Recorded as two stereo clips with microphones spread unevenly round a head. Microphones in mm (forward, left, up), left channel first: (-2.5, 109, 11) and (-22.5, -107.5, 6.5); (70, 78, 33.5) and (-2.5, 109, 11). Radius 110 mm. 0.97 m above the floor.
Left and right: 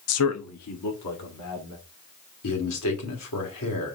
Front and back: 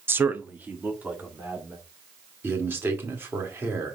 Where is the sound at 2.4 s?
95° left, 3 m.